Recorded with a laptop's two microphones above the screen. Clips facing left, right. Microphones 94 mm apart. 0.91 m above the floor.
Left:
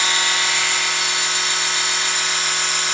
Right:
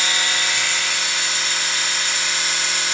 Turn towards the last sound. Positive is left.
turn(degrees=60)  # may be behind; listen again after turning